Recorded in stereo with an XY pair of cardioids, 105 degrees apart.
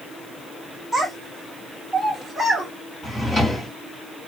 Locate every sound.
0.9 s a child speaking: straight ahead, 2 m; by 2.7 s 25° right, 1.3 m
3.0 s a drawer: 20° left, 2.5 m